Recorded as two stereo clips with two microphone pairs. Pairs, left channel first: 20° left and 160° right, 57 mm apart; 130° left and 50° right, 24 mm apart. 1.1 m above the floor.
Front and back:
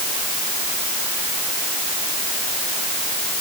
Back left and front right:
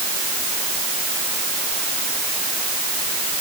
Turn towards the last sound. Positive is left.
No sound to turn to.